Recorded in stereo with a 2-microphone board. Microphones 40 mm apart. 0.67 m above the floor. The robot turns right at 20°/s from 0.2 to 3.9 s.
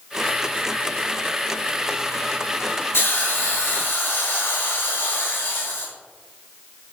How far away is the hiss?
About 7.5 m.